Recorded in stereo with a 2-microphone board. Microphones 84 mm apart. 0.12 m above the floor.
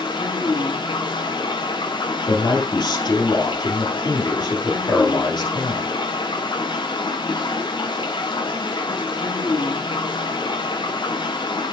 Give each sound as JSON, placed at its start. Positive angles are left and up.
{"t": 0.0, "sound": "running water", "side_deg": 75, "distance_m": 2.5}
{"t": 2.3, "sound": "a man speaking", "side_deg": 60, "distance_m": 3.0}